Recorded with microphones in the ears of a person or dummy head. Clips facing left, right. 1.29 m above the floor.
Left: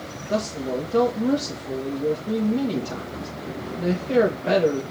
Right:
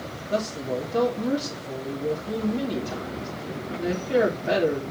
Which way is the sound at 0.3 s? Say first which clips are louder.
Left 2 dB; 75° left (ahead or behind).